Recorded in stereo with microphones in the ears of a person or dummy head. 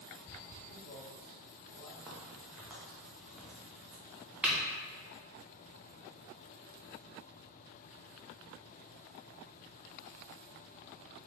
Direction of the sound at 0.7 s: 85° left.